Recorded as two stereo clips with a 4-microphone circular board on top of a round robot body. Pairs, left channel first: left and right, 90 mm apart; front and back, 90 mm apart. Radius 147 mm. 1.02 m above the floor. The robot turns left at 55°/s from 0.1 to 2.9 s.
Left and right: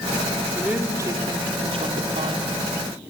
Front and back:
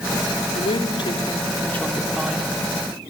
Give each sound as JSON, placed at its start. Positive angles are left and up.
{"t": 0.6, "sound": "a woman speaking", "azimuth_deg": -5, "distance_m": 3.5}